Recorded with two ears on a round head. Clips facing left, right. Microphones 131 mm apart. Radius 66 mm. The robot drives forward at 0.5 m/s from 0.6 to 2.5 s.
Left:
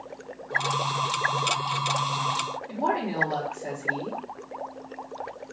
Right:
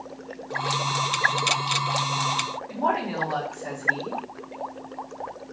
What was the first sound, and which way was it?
A woman speaking, 25° left (ahead or behind).